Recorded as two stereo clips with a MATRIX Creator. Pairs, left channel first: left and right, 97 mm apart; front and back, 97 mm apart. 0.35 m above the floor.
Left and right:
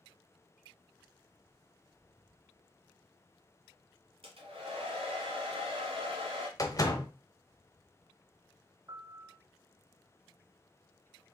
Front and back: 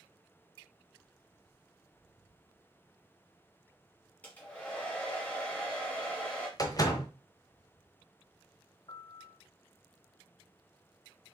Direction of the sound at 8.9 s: 40° right.